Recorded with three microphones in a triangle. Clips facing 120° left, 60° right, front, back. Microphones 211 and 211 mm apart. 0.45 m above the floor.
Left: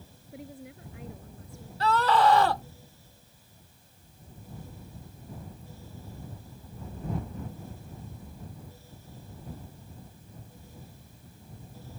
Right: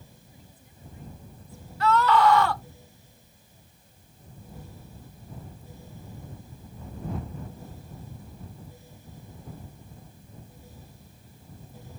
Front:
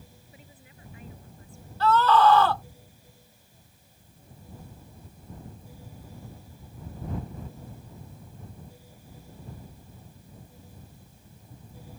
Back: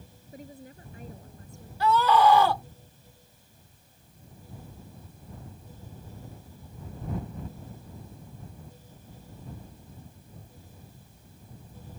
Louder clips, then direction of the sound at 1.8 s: Right 2 dB, front 1 dB; 115° left.